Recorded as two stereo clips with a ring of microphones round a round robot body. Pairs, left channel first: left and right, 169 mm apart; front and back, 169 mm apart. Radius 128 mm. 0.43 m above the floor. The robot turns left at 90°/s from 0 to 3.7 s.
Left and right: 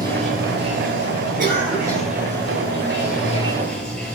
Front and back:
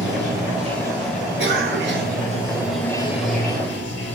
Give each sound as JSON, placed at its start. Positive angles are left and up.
{"t": 0.0, "sound": "running water", "azimuth_deg": -25, "distance_m": 6.5}
{"t": 1.4, "sound": "a cough", "azimuth_deg": -140, "distance_m": 7.0}